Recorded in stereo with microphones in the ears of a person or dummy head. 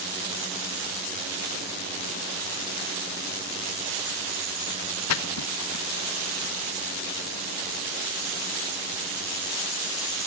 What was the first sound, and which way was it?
A splash, 75° left (ahead or behind).